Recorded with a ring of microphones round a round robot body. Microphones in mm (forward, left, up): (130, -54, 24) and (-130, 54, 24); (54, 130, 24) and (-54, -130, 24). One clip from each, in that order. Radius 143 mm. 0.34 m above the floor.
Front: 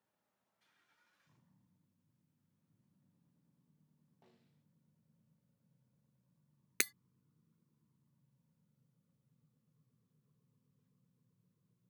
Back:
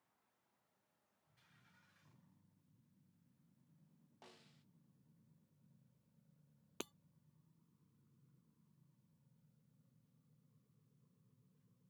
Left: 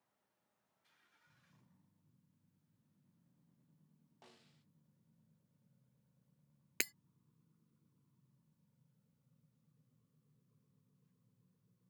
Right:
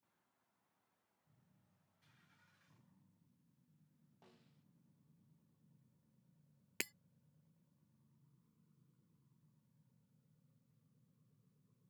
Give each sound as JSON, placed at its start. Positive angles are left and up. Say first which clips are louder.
{"t": 4.2, "sound": "a snare drum", "louder": "back 8 dB, left 5 dB", "azimuth_deg": 120}
{"t": 6.8, "sound": "breaking glass", "louder": "front 13 dB, left 4 dB", "azimuth_deg": -10}